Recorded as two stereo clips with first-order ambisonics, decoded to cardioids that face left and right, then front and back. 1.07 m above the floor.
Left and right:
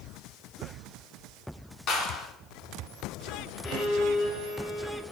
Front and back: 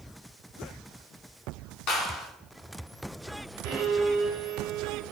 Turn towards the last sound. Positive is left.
turn(degrees=145)